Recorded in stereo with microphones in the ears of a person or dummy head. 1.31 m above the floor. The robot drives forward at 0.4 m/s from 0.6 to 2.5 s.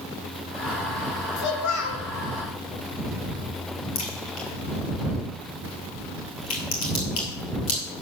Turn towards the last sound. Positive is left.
turn(degrees=45)  # may be behind; listen again after turning